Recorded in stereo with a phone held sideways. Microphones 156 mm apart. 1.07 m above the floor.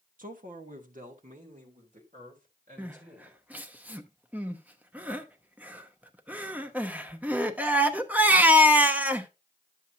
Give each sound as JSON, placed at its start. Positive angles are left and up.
{"t": 0.2, "sound": "a man speaking", "side_deg": -60, "distance_m": 1.1}
{"t": 2.8, "sound": "crying", "side_deg": -10, "distance_m": 0.8}